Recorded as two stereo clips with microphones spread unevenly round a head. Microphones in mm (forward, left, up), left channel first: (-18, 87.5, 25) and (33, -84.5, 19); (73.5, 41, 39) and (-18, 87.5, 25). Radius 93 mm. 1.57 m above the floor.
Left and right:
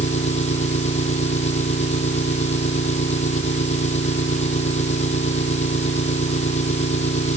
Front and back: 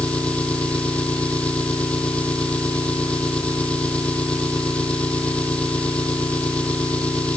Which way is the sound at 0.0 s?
50° left.